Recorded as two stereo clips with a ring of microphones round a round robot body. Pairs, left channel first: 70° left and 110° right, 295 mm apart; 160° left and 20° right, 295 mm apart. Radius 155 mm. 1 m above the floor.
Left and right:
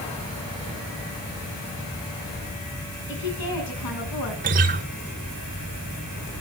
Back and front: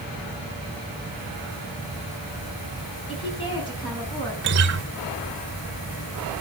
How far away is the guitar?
About 0.8 m.